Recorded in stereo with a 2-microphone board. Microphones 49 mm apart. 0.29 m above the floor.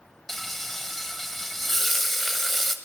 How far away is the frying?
About 1.5 m.